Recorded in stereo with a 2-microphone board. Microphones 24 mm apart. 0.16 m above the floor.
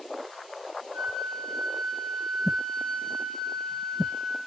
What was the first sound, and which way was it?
A flute, 40° left (ahead or behind).